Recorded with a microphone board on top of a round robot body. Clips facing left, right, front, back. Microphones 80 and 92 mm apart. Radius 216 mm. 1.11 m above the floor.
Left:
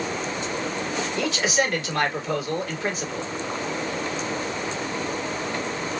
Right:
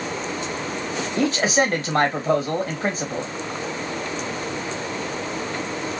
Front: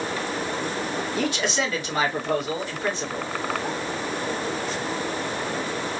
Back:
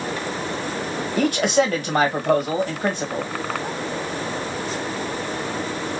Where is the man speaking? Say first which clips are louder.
Right 5 dB, back 9 dB; 140° right, 1.5 m.